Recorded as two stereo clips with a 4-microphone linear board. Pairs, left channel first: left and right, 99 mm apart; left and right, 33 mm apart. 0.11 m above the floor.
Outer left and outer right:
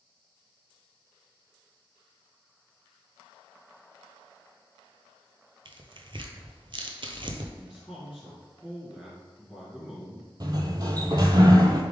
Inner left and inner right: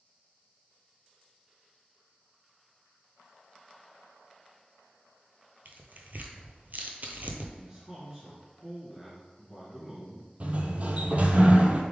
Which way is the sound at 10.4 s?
45° right (ahead or behind).